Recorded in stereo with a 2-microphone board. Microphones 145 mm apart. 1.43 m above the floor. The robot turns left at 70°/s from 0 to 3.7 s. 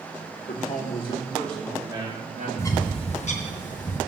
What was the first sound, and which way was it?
A man speaking, 80° left.